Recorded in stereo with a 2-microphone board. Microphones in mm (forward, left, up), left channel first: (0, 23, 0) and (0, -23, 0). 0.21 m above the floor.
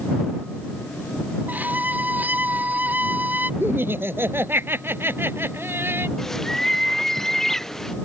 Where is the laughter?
55° right (ahead or behind).